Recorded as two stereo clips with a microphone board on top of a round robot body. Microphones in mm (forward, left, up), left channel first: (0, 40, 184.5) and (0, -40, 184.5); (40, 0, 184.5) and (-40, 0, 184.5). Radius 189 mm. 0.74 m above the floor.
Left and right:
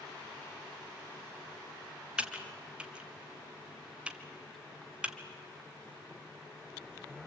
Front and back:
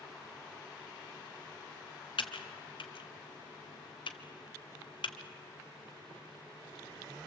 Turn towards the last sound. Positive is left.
turn(degrees=-15)